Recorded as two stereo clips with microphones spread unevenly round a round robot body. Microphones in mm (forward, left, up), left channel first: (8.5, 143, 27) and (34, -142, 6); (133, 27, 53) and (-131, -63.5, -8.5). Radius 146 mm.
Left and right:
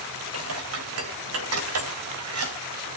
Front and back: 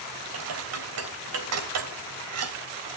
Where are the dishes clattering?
130° right, 3 m.